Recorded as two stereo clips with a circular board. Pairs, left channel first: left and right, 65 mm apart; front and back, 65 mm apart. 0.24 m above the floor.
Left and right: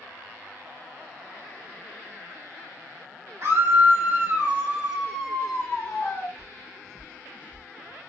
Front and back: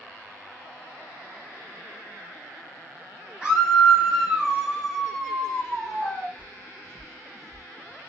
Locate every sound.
3.4 s a scream: 110° right, 1.3 m; by 6.3 s 60° left, 1.1 m
6.4 s footsteps: 120° right, 1.1 m; by 7.7 s 165° right, 0.9 m